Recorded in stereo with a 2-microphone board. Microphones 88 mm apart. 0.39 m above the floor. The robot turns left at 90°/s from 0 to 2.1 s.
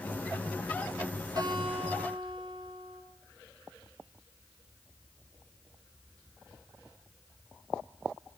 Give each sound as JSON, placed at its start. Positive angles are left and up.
{"t": 1.4, "sound": "a guitar", "azimuth_deg": -45, "distance_m": 4.5}